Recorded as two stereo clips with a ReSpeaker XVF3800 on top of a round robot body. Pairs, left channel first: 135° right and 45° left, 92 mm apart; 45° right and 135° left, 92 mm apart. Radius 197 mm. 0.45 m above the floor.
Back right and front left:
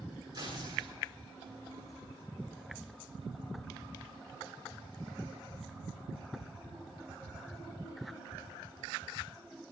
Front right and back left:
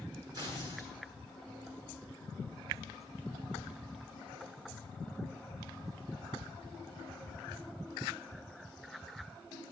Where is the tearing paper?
85° left, 8.5 m.